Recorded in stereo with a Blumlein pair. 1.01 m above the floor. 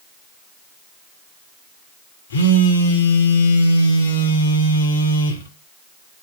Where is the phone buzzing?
65° left, 0.7 m.